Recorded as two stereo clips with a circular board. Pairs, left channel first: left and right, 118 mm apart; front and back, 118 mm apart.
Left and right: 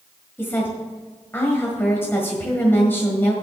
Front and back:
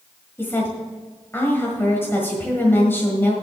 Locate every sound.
0.4 s a woman speaking: 45° left, 1.6 m